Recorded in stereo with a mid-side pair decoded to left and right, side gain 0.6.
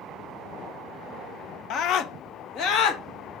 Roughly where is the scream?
Ahead left.